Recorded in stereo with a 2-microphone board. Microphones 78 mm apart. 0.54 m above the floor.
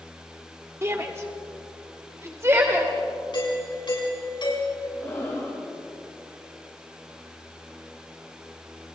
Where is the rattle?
I don't hear a rattle.